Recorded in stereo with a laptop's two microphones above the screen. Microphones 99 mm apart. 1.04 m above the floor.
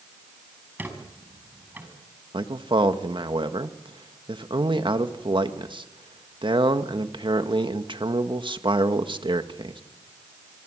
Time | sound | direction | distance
0.8 | a squeak | 20° right (ahead or behind) | 6 m
2.3 | a man speaking | 60° right (ahead or behind) | 1.6 m